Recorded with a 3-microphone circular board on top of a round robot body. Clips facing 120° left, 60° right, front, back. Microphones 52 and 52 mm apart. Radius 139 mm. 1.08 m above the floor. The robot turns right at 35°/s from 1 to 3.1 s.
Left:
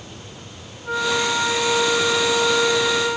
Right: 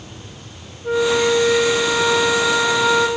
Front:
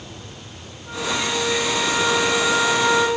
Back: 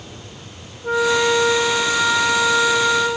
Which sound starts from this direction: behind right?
A flute, at 0.8 s.